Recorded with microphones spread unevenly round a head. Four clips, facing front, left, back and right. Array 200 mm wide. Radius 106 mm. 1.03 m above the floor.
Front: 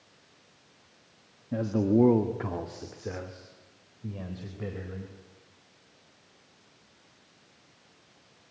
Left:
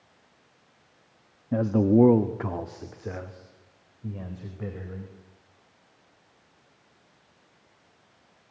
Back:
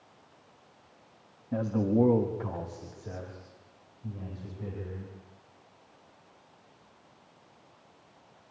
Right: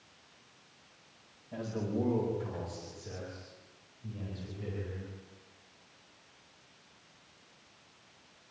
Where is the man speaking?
80° left, 1.4 m; by 5.1 s 25° left, 5.5 m.